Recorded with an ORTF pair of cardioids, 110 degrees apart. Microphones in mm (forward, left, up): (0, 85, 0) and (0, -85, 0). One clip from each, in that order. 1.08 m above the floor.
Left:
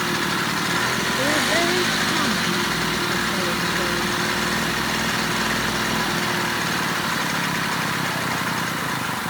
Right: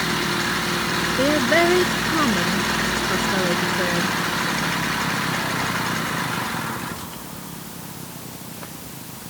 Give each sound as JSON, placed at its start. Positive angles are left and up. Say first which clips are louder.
{"t": 1.2, "sound": "a woman speaking", "louder": "right 3 dB", "azimuth_deg": -35}